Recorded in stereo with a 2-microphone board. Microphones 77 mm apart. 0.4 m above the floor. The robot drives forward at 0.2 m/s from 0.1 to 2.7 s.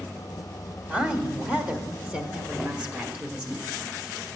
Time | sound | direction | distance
0.9 | a woman speaking | 20° right (ahead or behind) | 1.2 m
2.6 | a drawer | 5° left (ahead or behind) | 0.6 m